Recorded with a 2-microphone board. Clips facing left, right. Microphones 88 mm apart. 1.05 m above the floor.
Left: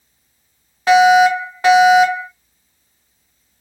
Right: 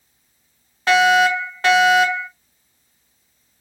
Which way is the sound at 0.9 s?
10° left (ahead or behind).